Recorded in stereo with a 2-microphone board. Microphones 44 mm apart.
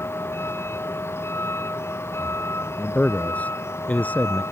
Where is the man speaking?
40° left (ahead or behind).